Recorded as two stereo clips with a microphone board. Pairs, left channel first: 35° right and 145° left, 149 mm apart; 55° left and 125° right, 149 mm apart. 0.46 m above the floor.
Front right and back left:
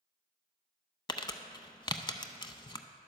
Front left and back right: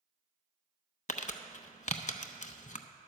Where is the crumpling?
25° left, 0.5 m.